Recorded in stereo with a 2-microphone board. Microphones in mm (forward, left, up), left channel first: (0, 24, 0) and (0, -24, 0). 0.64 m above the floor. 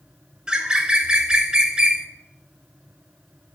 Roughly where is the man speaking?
I don't hear a man speaking.